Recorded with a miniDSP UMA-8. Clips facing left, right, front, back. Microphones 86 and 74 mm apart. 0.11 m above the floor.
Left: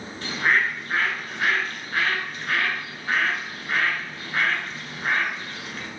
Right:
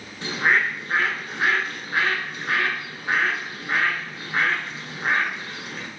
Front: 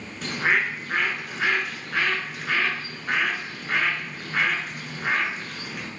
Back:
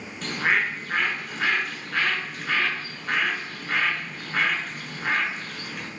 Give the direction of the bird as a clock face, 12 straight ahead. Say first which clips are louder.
Right 1 dB, front 1 dB; 3 o'clock.